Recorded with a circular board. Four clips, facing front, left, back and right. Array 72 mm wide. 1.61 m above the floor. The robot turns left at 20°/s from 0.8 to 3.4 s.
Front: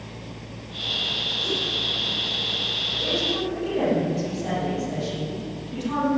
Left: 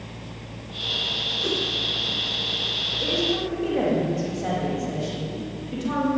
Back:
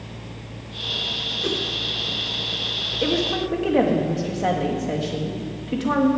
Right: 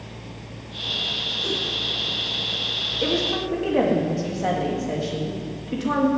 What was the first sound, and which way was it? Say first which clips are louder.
A whoosh: left 2 dB, back 4 dB; 160° left.